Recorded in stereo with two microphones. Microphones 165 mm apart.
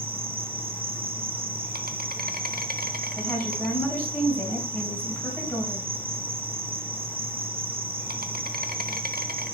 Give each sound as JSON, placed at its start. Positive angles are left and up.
{"t": 0.0, "sound": "an insect", "side_deg": -65, "distance_m": 0.8}
{"t": 3.2, "sound": "a woman speaking", "side_deg": 10, "distance_m": 3.5}